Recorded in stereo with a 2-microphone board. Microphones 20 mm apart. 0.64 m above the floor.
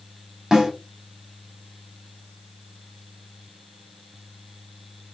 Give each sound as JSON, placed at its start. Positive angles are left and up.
{"t": 0.5, "sound": "a snare drum", "side_deg": -25, "distance_m": 2.0}